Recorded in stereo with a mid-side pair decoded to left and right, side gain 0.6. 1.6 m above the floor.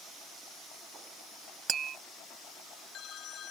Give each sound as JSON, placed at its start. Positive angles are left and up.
{"t": 1.7, "sound": "tapping", "azimuth_deg": -45}